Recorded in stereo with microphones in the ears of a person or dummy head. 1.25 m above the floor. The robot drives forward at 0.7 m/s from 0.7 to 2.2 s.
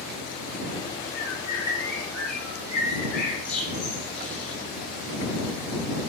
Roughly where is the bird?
Centre.